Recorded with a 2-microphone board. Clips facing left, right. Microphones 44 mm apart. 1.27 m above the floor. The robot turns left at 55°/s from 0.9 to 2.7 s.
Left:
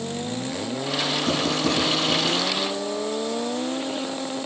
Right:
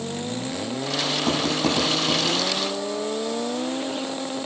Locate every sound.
1.3 s writing: 70° right (ahead or behind), 8.5 m; by 2.4 s 45° right (ahead or behind), 8.5 m